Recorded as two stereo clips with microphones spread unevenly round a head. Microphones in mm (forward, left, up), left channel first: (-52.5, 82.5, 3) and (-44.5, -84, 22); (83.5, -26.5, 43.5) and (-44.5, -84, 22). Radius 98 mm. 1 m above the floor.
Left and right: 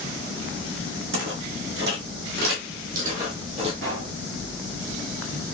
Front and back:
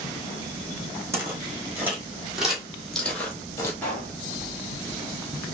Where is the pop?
55° right, 1.8 m.